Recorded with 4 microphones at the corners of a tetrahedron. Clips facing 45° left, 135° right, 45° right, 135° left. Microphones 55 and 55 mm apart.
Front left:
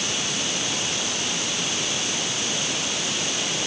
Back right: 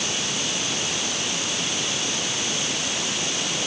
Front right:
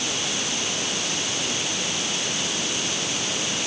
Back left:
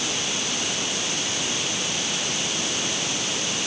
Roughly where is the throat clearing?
No throat clearing in this recording.